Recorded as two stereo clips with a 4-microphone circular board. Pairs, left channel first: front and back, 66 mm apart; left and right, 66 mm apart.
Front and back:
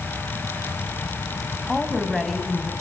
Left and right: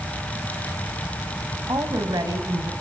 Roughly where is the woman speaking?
Right.